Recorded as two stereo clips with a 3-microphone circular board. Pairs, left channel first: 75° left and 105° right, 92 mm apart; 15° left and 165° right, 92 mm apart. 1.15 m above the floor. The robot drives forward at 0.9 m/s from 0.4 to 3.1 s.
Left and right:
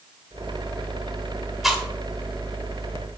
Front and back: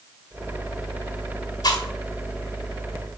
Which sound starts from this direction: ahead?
Chewing, at 1.6 s.